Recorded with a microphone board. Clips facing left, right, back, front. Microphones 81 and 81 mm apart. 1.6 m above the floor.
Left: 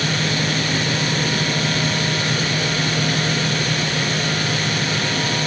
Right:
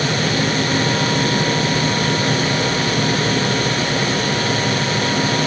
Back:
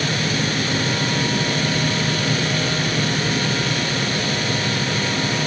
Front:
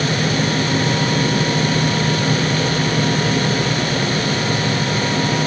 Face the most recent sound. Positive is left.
No sound to turn to.